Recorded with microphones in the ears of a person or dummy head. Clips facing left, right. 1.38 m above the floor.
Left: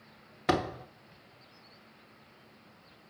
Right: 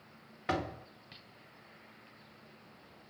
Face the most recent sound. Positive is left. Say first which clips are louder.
# left 6 dB
turn(degrees=60)  # may be behind; listen again after turning